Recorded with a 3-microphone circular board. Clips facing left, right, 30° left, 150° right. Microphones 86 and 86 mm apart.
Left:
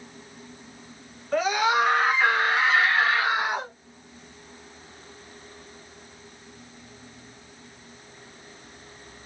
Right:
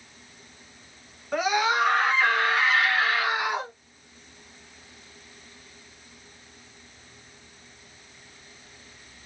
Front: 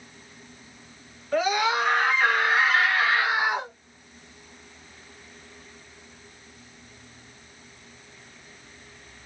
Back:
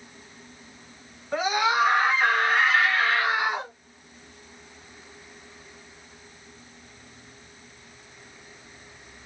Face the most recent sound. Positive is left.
turn(degrees=90)